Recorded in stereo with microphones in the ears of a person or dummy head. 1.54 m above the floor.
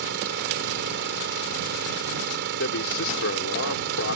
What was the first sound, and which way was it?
An engine running, 60° right (ahead or behind).